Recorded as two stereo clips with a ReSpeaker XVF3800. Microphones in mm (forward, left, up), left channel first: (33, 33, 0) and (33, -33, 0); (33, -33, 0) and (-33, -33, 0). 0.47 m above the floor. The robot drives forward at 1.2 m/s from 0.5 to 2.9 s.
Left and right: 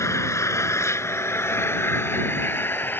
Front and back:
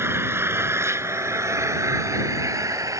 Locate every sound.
0.0 s an engine running: 130° left; by 3.0 s 145° left